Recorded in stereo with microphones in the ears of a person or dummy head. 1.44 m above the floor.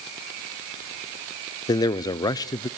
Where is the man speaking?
20° left (ahead or behind), 0.6 m.